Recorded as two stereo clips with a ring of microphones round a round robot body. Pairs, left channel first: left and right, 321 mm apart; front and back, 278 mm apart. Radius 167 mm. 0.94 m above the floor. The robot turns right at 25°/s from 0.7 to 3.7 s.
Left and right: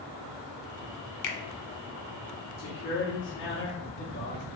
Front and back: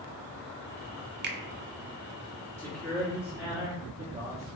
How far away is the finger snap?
About 0.6 m.